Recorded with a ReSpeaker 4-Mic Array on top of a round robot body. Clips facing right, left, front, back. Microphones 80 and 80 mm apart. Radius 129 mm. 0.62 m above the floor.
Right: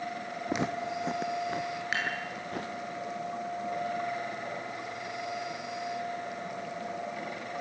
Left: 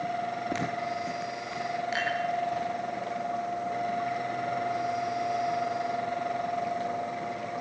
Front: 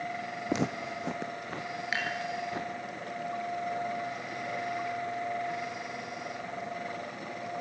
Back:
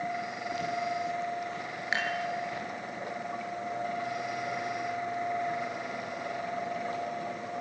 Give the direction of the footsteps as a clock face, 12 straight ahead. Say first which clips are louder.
Left 1 dB, even; 12 o'clock.